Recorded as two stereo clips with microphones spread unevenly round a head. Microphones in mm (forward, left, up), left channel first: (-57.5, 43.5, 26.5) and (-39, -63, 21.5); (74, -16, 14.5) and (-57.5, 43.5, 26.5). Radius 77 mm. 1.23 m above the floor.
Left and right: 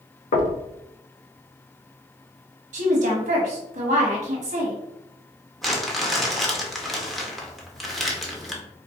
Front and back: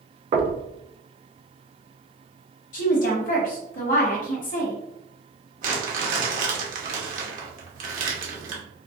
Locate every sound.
0.3 s knocking: 105° left, 0.6 m
2.7 s a woman speaking: 60° right, 1.1 m
5.6 s crumpling: 170° right, 0.9 m